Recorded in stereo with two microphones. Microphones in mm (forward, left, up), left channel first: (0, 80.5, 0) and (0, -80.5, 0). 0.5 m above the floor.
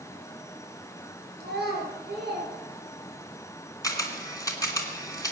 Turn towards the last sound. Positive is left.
turn(degrees=20)  # may be behind; listen again after turning